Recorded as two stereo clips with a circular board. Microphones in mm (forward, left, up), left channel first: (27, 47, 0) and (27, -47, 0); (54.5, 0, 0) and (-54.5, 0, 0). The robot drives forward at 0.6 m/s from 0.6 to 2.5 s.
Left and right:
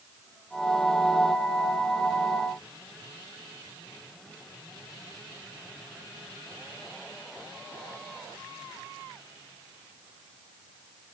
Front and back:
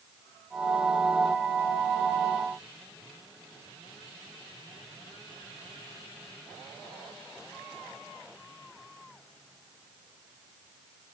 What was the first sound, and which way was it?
Only background noise.